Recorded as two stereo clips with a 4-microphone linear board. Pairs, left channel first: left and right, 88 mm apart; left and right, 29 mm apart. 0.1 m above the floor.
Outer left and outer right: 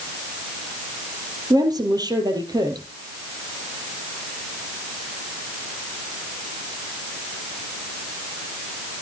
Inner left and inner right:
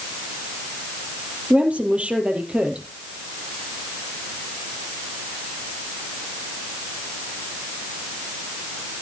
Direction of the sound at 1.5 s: 50° right (ahead or behind).